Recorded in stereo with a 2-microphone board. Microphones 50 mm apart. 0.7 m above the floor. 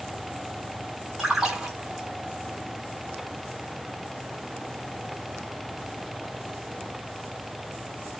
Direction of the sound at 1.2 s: 10° right (ahead or behind).